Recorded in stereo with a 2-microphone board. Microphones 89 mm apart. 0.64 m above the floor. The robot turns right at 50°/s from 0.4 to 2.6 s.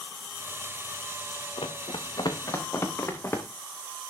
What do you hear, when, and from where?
1.6 s running footsteps: 80° left, 3 m; by 3.5 s 25° left (ahead or behind), 4 m